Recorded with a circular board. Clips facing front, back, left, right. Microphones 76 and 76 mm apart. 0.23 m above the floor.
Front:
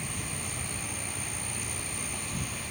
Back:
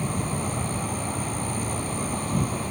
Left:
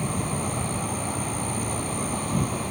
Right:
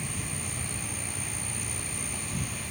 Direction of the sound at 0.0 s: 130° left.